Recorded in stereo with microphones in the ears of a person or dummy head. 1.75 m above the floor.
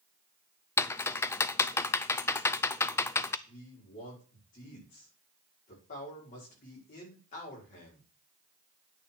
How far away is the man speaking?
About 5.5 m.